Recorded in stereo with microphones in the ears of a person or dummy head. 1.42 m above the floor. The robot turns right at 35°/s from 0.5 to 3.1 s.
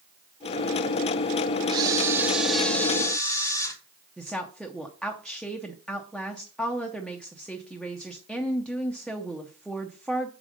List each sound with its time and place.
1.7 s a camera shutter: 25° right, 1.2 m; by 3.8 s 25° left, 1.2 m
4.2 s a woman speaking: 5° left (ahead or behind), 0.7 m